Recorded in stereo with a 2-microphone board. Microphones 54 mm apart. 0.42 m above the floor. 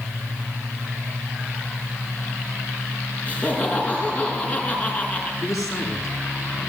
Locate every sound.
3.3 s laughter: 25° left (ahead or behind), 5.5 m
5.4 s a man speaking: 70° left (ahead or behind), 6.5 m